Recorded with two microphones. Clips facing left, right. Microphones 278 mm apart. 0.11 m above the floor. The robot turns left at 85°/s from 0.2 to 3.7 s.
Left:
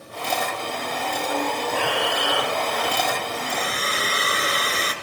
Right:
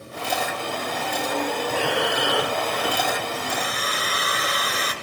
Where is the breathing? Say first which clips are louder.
Right 1 dB; 45° right, 2 m; by 3.2 s 175° right, 2 m.